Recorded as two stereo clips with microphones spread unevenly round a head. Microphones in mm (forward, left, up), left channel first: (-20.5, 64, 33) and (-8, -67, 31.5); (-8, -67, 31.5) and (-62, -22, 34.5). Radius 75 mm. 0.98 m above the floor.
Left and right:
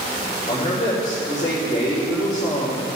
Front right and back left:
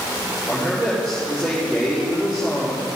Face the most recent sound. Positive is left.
turn(degrees=50)